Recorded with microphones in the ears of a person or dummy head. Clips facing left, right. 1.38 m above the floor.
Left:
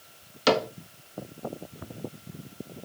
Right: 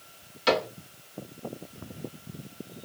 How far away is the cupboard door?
About 1.0 m.